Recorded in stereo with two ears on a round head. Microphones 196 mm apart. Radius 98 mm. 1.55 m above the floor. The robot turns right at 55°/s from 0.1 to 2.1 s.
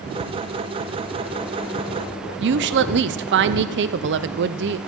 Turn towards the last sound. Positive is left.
turn(degrees=-55)  # may be behind; listen again after turning